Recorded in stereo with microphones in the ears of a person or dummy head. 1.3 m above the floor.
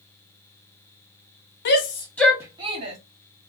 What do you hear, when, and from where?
1.6 s a shout: 55° left (ahead or behind), 0.7 m; by 3.0 s 35° right (ahead or behind), 1.2 m